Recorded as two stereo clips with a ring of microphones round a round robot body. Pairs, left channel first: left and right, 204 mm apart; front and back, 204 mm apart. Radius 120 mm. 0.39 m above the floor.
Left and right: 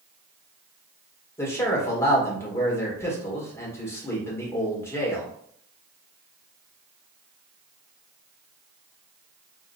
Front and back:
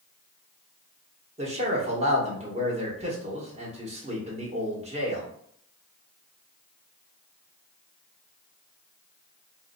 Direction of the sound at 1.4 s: 160° left.